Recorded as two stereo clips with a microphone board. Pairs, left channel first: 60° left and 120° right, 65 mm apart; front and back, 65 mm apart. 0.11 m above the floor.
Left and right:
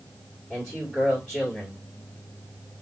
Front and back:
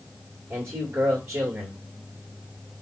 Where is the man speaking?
140° left, 2.5 m.